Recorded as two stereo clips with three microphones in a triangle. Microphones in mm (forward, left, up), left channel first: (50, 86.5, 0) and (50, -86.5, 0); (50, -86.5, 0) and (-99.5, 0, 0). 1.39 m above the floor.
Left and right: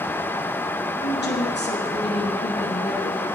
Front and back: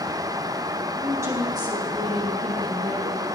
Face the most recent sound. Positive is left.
turn(degrees=115)